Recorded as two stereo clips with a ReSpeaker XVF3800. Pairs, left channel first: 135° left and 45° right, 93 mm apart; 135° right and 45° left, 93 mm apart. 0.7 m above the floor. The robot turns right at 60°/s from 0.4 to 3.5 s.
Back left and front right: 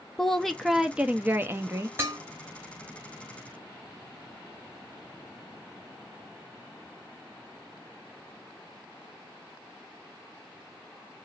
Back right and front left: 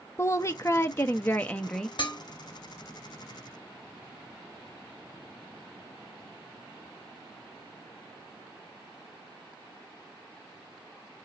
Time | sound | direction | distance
0.2 | a woman speaking | 145° right | 0.5 m
2.0 | dishes clattering | 110° right | 1.2 m